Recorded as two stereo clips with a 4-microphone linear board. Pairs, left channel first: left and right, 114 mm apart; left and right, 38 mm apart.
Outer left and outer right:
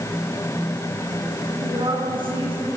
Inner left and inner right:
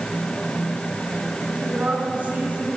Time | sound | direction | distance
1.6 | a woman speaking | 45° right (ahead or behind) | 6 m